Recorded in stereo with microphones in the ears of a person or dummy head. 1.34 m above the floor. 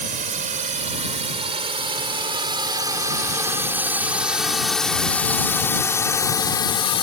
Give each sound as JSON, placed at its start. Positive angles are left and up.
{"t": 0.0, "sound": "a drone", "side_deg": -45}